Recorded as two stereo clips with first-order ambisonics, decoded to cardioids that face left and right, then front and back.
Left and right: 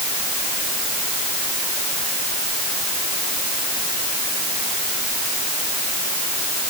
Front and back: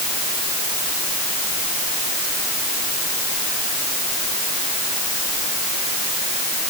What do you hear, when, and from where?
Only background noise.